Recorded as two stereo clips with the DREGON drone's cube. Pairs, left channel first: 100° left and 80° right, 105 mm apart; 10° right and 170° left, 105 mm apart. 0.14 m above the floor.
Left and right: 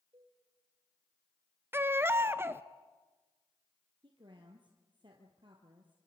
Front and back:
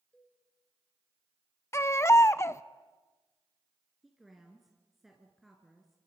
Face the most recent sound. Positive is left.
turn(degrees=-105)